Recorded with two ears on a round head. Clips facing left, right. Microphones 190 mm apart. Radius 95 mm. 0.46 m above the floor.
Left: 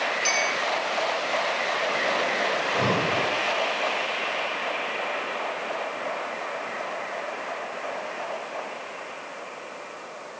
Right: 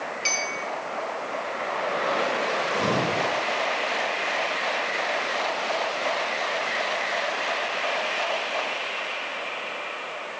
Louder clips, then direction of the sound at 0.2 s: Left 4 dB; 15° left (ahead or behind).